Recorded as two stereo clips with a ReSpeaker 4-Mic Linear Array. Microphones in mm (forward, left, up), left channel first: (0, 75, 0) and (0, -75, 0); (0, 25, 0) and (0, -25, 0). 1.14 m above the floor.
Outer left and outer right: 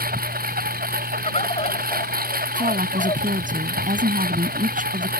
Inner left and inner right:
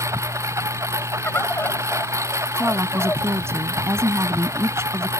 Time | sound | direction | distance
0.0 | a lawn mower | 85° right | ?
1.2 | a bird | 45° left (ahead or behind) | ?
2.5 | a woman speaking | 65° right (ahead or behind) | ?